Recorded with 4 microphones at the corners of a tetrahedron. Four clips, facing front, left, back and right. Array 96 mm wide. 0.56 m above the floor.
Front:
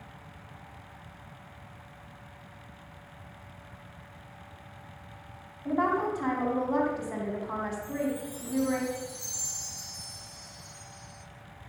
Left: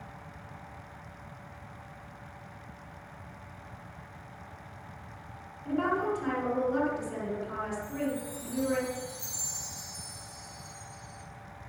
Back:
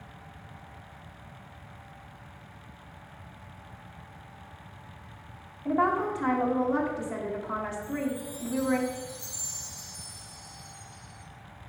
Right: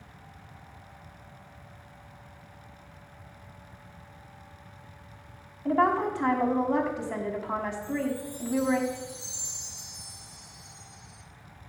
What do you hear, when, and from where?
5.7 s a woman speaking: 75° right, 4 m
7.8 s a chime: 45° right, 2 m